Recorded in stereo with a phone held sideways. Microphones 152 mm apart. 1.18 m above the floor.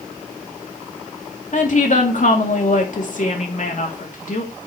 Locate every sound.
1.5 s a woman speaking: 60° left (ahead or behind), 2.5 m